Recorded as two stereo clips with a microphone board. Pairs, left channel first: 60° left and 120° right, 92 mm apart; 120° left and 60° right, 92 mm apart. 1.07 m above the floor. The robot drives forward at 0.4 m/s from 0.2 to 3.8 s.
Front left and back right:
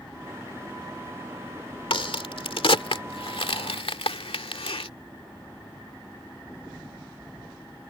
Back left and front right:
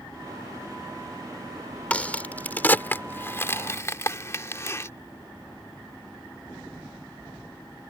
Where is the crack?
45° left; by 4.9 s 60° left.